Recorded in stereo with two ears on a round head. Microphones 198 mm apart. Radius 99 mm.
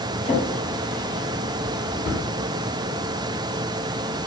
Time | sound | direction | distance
0.2 | a drawer | 30° left (ahead or behind) | 1.9 m